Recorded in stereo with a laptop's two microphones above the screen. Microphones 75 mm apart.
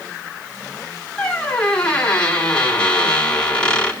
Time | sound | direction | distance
1.2 | a squeak | 15° left (ahead or behind) | 7 m